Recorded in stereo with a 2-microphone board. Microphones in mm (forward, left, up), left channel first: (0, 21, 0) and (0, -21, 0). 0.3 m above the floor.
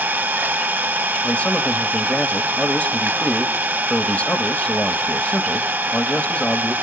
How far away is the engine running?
About 0.7 m.